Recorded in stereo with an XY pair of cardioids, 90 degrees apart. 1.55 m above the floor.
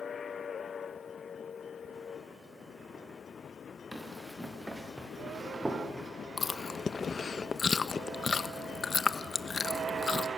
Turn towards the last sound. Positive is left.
turn(degrees=40)